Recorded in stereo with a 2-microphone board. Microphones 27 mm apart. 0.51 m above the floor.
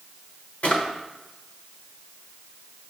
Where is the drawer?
55° left (ahead or behind), 1.0 m.